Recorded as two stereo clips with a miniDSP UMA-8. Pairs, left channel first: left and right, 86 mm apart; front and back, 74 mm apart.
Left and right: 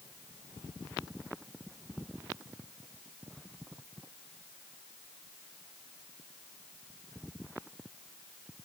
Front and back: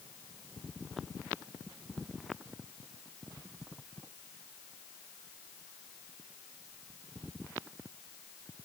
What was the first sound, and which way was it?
Only background noise.